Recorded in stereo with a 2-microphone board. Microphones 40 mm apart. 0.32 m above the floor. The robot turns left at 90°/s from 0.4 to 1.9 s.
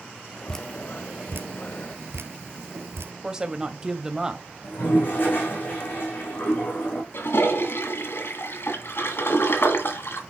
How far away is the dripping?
About 1.0 m.